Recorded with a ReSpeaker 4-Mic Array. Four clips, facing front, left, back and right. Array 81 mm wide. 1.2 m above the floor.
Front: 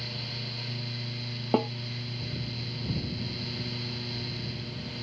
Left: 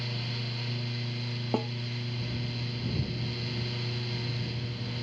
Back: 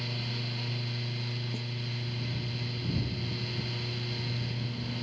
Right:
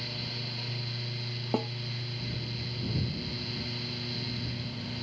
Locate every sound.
1.5 s a snare drum: straight ahead